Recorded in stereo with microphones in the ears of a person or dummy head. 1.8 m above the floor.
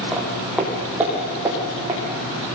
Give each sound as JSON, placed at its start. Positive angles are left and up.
{"t": 0.1, "sound": "footsteps", "side_deg": 0, "distance_m": 5.5}